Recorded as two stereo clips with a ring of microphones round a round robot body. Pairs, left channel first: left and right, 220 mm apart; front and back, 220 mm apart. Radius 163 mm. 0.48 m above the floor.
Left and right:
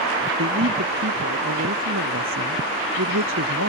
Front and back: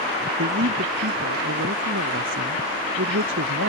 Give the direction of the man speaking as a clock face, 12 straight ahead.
4 o'clock.